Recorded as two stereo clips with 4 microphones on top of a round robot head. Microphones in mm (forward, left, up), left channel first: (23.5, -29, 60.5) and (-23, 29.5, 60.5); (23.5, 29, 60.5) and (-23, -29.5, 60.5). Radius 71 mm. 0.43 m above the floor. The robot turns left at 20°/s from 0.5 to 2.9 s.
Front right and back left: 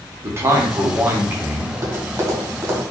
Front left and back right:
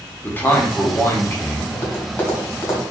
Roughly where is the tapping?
Left.